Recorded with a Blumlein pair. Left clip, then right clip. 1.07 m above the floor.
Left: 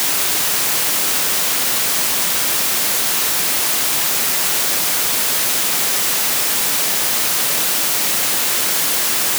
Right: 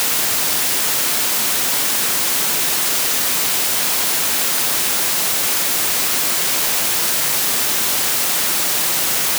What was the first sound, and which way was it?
Only background noise.